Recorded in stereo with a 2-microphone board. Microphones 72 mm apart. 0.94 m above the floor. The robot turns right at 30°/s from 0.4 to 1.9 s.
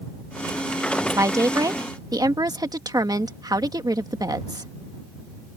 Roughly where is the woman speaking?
Right.